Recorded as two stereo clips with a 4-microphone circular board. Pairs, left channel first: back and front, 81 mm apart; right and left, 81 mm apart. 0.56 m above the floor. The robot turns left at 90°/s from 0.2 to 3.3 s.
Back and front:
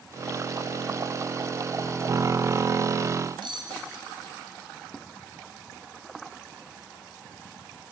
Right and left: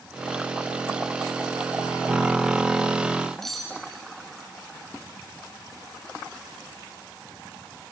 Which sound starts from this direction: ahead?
Cutlery clinking, at 3.4 s.